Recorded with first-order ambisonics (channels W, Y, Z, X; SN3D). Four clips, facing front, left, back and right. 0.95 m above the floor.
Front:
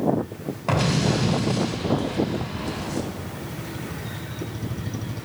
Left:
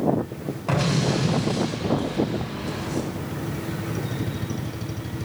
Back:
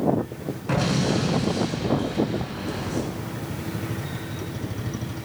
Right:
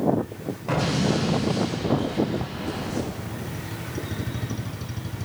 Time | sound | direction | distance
0.7 | an explosion | 10° left | 3.5 m